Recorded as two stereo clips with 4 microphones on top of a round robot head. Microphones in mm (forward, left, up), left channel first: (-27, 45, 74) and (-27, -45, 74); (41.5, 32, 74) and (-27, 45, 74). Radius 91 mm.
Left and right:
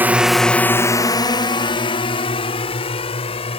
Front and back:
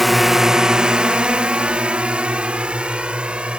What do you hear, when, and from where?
0.0 s a drone: 100° right; by 3.6 s 95° left